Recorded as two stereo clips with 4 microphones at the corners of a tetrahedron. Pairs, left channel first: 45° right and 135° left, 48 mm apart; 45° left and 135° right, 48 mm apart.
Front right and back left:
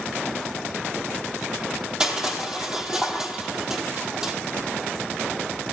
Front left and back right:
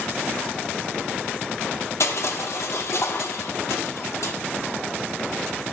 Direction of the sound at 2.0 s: 65° left.